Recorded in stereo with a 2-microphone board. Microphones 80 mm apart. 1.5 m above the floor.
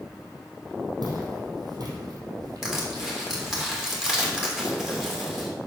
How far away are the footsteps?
About 4 m.